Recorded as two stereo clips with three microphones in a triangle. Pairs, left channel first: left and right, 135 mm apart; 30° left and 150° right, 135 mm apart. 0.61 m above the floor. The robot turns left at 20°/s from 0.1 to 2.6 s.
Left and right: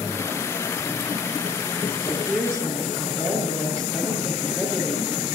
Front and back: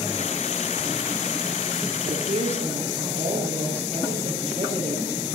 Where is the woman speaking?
175° left, 8 m; by 5.2 s 160° left, 8 m.